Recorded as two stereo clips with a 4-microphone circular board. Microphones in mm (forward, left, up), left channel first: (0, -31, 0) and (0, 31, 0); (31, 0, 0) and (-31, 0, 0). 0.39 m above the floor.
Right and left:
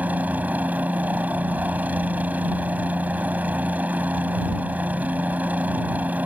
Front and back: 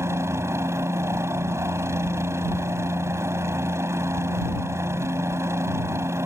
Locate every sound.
0.0 s a helicopter: 150° left